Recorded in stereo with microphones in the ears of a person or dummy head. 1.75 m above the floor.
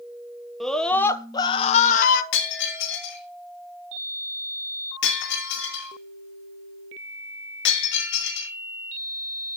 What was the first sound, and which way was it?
A scream, centre (ahead or behind).